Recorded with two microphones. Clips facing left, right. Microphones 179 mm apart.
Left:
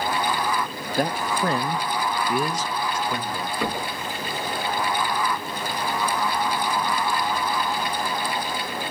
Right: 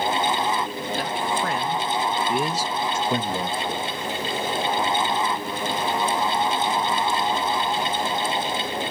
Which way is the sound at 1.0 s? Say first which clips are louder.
Left 4 dB; 50° left (ahead or behind).